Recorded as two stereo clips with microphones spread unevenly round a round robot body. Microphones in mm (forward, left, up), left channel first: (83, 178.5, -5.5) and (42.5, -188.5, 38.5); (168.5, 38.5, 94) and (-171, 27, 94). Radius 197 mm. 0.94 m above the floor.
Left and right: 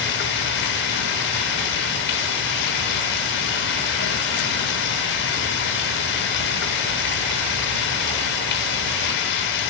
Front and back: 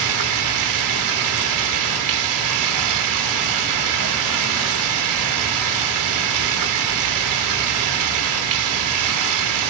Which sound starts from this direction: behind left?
Running water, at 0.0 s.